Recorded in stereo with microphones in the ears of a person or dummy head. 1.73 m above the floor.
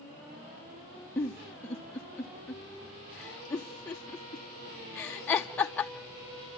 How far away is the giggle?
About 0.7 m.